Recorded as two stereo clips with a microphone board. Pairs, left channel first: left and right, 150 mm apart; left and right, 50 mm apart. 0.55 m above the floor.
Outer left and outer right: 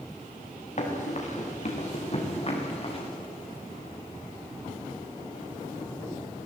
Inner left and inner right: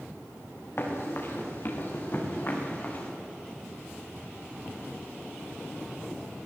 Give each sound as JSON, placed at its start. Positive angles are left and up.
{"t": 0.8, "sound": "running footsteps", "side_deg": 50, "distance_m": 6.0}